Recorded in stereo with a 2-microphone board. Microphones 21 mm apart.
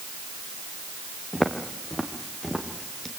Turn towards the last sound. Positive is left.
turn(degrees=15)  # may be behind; listen again after turning